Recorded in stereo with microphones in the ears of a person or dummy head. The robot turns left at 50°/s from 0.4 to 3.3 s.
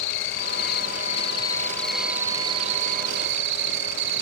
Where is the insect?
80° left; by 4.2 s 65° right.